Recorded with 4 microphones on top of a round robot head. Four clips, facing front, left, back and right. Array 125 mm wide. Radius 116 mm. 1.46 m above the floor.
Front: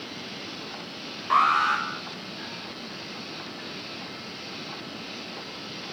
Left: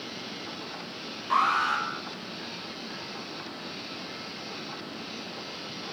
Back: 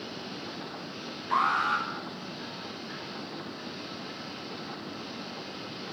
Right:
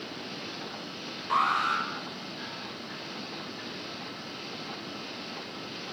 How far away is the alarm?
About 9.5 m.